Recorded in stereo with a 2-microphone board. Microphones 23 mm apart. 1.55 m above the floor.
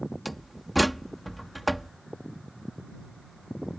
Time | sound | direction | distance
0.2 | a door slam | centre (ahead or behind) | ?